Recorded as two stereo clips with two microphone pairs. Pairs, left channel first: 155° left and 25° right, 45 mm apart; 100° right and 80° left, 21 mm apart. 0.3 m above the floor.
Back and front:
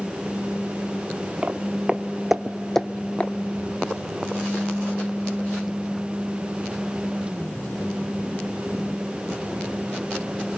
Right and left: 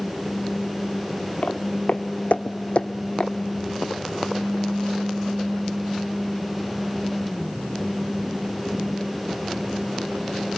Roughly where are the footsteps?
Right.